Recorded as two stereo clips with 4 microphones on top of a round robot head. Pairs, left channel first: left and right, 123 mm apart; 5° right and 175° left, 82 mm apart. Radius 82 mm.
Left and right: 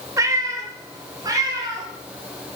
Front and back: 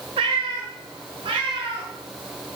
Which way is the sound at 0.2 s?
155° right.